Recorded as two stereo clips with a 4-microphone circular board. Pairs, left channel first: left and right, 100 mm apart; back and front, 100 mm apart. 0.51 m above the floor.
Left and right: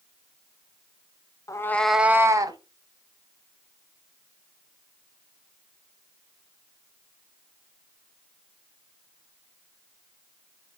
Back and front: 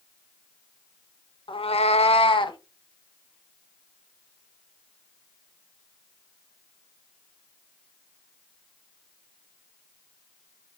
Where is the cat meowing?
145° left, 0.6 m; by 2.6 s 140° right, 0.9 m.